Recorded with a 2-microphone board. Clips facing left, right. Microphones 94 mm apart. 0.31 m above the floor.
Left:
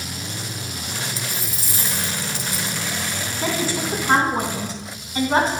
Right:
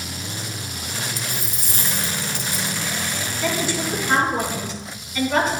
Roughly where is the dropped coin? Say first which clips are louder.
Even; right.